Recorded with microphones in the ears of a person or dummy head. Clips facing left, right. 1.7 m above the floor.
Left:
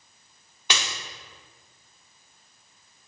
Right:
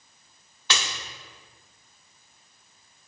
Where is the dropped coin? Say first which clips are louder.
Even; 10° left (ahead or behind), 1.3 m.